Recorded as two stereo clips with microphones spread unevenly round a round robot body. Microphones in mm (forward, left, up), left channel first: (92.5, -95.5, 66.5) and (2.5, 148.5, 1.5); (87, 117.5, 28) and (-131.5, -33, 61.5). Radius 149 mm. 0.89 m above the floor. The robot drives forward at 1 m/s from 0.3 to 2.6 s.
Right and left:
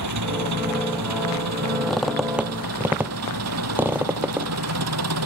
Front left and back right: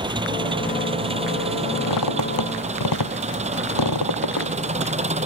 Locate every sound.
0.0 s an engine running: 140° left; by 5.3 s 150° left
1.9 s a squeak: 10° left; by 4.5 s 20° left